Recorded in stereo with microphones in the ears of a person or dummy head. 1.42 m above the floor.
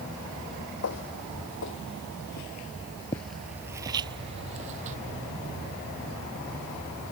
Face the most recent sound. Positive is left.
turn(degrees=-40)  # may be behind; listen again after turning